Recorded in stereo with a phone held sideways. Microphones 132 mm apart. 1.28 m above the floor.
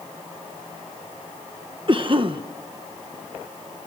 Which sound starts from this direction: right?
A cough, at 1.9 s.